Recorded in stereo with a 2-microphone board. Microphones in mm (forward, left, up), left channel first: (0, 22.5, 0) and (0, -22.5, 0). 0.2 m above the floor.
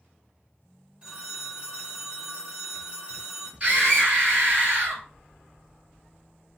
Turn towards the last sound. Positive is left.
turn(degrees=-25)  # may be behind; listen again after turning